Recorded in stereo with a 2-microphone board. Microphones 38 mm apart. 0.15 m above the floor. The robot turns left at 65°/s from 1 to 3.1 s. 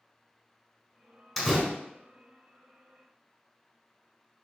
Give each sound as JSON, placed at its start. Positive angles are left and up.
{"t": 1.4, "sound": "a door slam", "side_deg": 5, "distance_m": 1.0}